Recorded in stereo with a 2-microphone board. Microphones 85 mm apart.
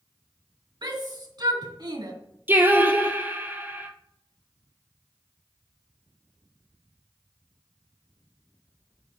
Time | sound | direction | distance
0.8 | a shout | 60° right (ahead or behind) | 3.5 m
2.5 | singing | 25° right (ahead or behind) | 1.2 m